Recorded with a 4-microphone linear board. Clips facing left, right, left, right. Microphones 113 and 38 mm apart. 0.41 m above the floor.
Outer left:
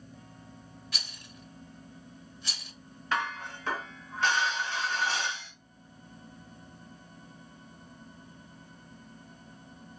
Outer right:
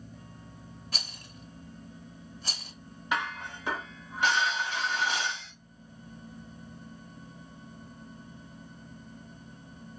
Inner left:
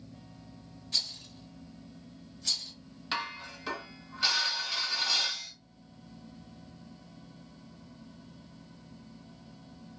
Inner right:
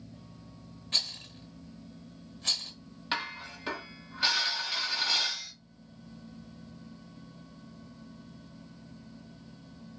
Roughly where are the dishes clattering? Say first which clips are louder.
Even, inner right 1 dB; centre.